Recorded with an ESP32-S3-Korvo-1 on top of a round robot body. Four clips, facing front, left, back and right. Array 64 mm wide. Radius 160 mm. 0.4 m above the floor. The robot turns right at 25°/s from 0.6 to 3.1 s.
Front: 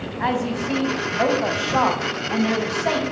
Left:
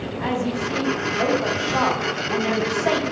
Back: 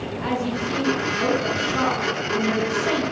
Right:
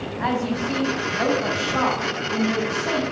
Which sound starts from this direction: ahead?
A woman speaking, at 0.2 s.